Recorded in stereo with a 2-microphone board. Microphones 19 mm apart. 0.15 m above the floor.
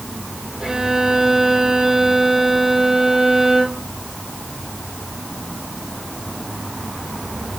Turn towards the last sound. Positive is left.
turn(degrees=-25)  # may be behind; listen again after turning